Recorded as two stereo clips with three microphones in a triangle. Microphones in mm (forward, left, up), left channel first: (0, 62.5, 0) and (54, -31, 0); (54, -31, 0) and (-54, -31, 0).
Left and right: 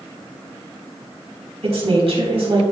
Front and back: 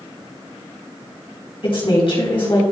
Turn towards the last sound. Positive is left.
turn(degrees=-35)